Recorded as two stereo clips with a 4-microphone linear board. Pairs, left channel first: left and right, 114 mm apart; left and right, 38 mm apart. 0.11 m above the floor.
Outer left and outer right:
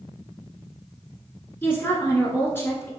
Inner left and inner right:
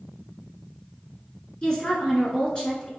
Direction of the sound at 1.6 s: 20° left (ahead or behind).